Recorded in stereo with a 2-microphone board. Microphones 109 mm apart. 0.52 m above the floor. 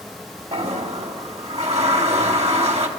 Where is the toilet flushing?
75° right (ahead or behind), 1.9 m.